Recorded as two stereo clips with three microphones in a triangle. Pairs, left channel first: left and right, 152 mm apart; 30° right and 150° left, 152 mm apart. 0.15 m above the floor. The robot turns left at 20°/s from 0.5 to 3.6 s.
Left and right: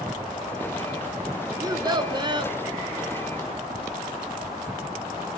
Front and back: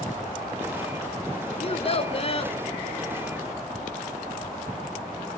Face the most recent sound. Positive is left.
turn(degrees=-75)